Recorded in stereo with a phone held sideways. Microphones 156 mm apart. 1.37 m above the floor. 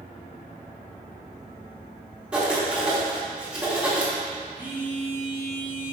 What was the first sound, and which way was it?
Writing, 5° right (ahead or behind).